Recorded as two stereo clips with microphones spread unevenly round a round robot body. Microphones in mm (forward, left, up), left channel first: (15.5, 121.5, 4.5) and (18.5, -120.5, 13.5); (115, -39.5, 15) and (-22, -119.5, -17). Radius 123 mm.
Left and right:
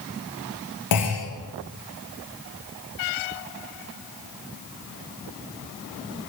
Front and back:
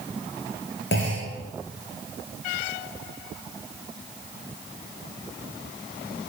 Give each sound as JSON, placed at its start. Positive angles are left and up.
{"t": 0.9, "sound": "a clunk", "azimuth_deg": 80, "distance_m": 7.0}